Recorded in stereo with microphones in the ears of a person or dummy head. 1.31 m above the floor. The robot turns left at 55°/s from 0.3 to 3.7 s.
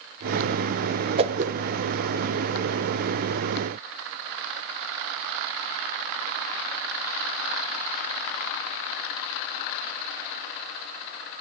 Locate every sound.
1.2 s a whoosh: 30° right (ahead or behind), 0.7 m; by 1.5 s 45° right (ahead or behind), 0.7 m